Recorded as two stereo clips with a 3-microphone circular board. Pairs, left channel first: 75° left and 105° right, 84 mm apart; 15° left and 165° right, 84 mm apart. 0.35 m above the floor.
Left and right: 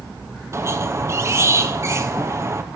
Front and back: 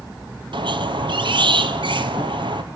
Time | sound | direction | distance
0.5 | a squeak | 160° right | 0.8 m